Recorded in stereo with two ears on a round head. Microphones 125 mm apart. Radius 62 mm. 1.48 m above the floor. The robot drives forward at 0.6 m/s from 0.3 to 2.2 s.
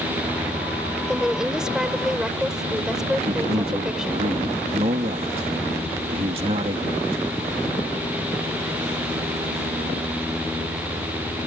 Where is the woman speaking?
5° right (ahead or behind).